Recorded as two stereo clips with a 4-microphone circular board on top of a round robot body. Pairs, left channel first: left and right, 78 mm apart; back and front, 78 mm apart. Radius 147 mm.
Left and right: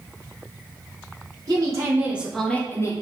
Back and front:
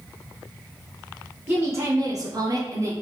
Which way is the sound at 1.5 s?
55° right.